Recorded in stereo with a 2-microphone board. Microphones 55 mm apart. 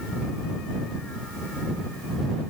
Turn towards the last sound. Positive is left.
No sound to turn to.